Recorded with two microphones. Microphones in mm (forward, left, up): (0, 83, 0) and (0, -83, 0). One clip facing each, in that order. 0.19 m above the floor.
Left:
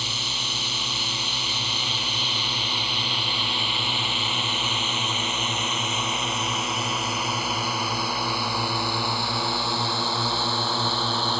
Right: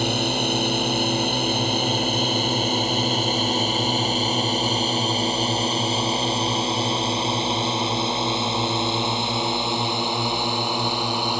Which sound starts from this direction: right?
A drone, at 0.0 s.